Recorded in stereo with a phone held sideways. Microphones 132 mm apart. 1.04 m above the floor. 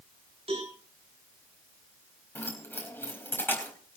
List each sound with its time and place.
0.5 s a cowbell: 45° right (ahead or behind), 7 m
2.4 s keys jangling: 15° left (ahead or behind), 4 m